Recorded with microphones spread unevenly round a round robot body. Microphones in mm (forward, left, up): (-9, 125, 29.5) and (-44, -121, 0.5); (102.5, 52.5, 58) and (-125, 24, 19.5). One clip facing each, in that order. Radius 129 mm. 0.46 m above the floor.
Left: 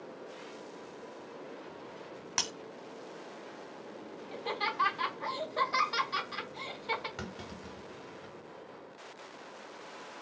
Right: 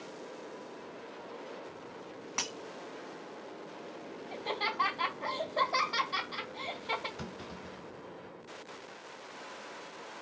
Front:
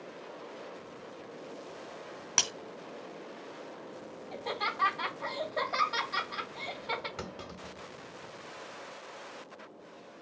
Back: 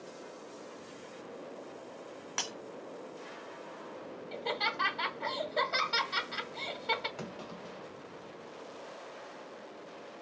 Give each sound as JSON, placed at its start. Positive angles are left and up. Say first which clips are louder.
{"t": 2.4, "sound": "breaking glass", "louder": "left 1 dB, front 2 dB", "azimuth_deg": 40, "distance_m": 1.1}
{"t": 4.3, "sound": "laughter", "louder": "even, back 1 dB", "azimuth_deg": 145, "distance_m": 2.5}
{"t": 7.2, "sound": "a clunk", "louder": "even, even", "azimuth_deg": 75, "distance_m": 1.2}